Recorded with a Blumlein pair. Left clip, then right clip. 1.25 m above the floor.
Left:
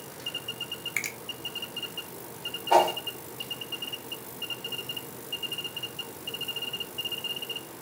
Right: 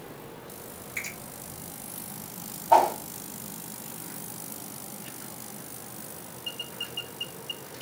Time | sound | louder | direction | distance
1.0 | a finger snap | left 2 dB | 45° left | 1.3 m
2.7 | a whoosh | right 2 dB | 70° left | 2 m